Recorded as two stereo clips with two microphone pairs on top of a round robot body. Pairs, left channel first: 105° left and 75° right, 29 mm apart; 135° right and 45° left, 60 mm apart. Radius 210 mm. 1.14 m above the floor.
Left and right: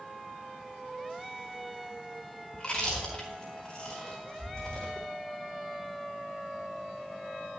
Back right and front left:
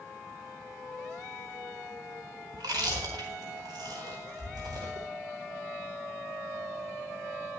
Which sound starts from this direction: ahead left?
Chewing, at 2.5 s.